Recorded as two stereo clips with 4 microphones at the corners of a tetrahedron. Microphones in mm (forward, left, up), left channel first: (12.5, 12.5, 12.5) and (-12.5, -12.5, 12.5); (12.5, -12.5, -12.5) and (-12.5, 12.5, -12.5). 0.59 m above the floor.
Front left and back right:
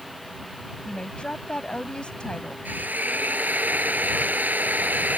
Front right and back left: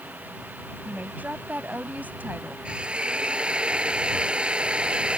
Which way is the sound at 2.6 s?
165° right.